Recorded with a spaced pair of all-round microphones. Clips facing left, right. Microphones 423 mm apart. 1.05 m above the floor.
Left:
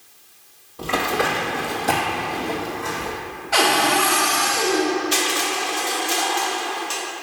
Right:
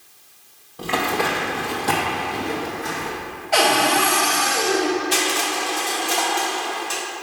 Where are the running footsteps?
5° left (ahead or behind), 1.4 m; by 3.1 s 30° right (ahead or behind), 2 m.